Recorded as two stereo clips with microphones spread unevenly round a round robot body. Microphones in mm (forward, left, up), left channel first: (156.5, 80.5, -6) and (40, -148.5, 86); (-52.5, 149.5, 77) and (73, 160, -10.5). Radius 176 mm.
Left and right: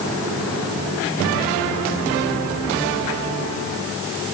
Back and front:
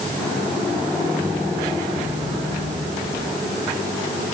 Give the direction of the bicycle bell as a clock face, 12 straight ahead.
No bicycle bell in this recording.